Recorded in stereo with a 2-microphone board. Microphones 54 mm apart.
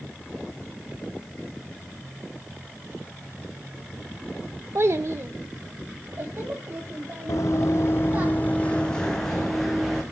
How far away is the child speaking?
About 0.5 m.